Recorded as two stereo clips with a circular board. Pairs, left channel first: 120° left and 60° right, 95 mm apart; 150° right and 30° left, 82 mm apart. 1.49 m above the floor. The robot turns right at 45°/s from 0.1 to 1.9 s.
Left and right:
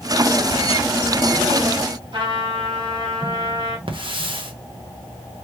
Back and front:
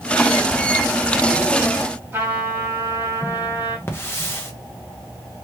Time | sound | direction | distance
2.1 | a trumpet | 30° right | 2.5 m
3.9 | a hiss | 90° right | 1.1 m